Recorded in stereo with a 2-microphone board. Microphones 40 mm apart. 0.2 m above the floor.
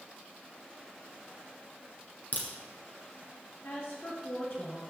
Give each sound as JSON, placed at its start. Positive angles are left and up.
{"t": 2.3, "sound": "a crack", "side_deg": 45, "distance_m": 2.0}
{"t": 3.6, "sound": "a woman speaking", "side_deg": 70, "distance_m": 4.5}